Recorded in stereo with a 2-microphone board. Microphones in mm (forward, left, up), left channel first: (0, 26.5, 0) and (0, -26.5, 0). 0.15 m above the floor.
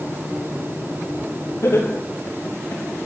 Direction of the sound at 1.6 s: 70° left (ahead or behind).